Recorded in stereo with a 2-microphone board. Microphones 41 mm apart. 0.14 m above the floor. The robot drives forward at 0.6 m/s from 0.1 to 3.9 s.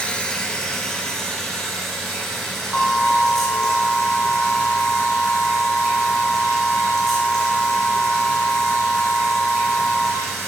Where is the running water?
30° left (ahead or behind), 0.9 m; by 10.5 s 10° left (ahead or behind), 3 m.